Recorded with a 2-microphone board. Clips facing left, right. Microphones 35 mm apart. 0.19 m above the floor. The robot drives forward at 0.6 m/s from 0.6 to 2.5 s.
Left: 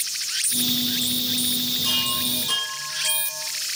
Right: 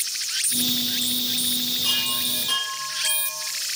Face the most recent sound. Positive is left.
turn(degrees=-20)  # may be behind; listen again after turning